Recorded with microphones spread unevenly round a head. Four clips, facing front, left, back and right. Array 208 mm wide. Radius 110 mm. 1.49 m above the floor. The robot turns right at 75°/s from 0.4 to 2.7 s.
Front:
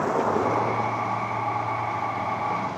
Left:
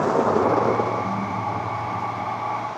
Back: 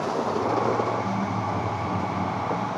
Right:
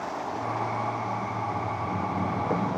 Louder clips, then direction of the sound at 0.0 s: Left 12 dB, front 2 dB; 85° left.